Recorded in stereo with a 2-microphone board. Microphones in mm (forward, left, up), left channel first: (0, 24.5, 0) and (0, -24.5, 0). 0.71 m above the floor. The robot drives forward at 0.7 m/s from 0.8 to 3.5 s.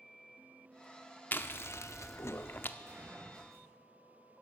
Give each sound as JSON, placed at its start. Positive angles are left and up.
{"t": 1.3, "sound": "chewing", "side_deg": 45, "distance_m": 0.7}
{"t": 2.8, "sound": "a gunshot", "side_deg": -80, "distance_m": 7.0}